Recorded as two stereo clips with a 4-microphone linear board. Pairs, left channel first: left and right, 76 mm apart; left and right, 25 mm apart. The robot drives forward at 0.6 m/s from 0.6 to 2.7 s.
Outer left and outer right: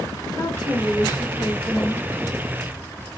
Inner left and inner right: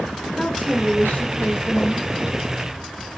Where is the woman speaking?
45° left (ahead or behind), 1.6 m; by 2.1 s 50° left (ahead or behind), 1.6 m.